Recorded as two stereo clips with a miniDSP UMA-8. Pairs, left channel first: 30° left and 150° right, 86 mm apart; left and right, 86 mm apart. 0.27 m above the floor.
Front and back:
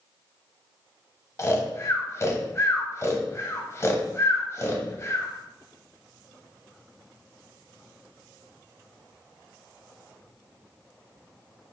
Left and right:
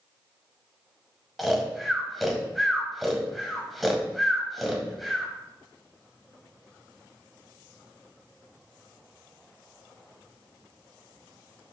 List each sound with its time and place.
1.4 s snoring: straight ahead, 0.7 m